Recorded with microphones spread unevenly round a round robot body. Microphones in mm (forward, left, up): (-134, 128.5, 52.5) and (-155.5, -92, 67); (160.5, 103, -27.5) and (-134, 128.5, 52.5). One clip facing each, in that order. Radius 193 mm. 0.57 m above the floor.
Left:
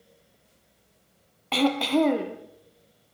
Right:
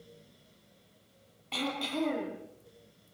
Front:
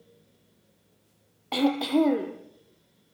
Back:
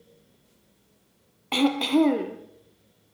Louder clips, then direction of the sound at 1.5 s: Left 12 dB, back 2 dB; 100° left.